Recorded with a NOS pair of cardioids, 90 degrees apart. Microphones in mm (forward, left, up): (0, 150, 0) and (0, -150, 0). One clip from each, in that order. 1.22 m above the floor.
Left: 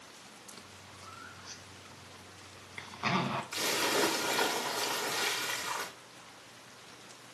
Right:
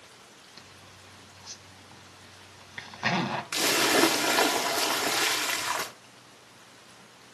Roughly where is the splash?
Ahead right.